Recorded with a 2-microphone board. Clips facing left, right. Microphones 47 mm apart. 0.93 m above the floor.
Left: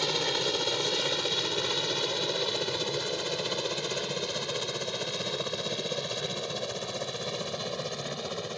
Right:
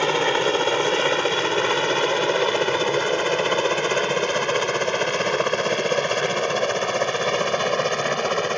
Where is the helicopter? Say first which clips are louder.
Right 10 dB; 45° right (ahead or behind); by 8.6 s 60° right (ahead or behind).